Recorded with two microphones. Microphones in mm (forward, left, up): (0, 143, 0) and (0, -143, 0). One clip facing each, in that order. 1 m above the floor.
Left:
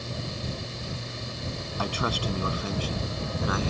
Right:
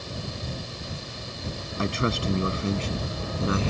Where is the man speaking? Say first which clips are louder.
Right 4 dB; 25° right (ahead or behind); by 3.7 s 30° right (ahead or behind).